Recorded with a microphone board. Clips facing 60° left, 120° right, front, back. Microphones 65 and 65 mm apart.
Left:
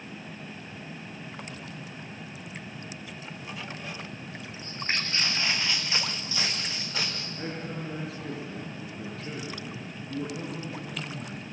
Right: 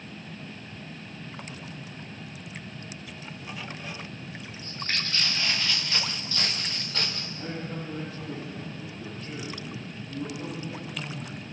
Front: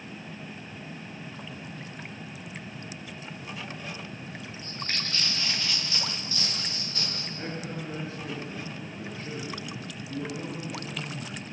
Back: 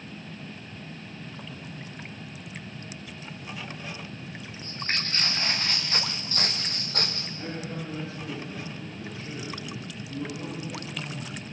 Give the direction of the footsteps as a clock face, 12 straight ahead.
8 o'clock.